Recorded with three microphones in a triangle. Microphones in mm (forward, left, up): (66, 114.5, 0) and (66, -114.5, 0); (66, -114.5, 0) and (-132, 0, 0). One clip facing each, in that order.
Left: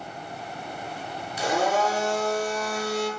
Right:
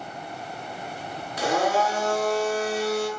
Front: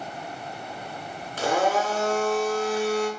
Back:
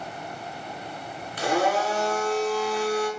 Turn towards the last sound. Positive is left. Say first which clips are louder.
# right 1 dB, even
turn(degrees=-70)